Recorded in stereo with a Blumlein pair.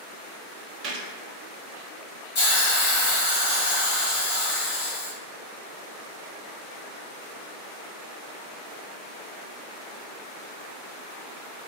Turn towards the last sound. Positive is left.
turn(degrees=50)